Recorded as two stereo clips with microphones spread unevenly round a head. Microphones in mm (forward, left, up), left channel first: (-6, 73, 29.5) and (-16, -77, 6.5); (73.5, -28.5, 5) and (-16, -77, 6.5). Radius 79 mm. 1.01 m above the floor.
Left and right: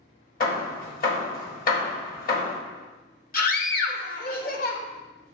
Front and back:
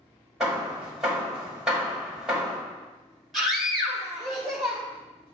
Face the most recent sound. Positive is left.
turn(degrees=120)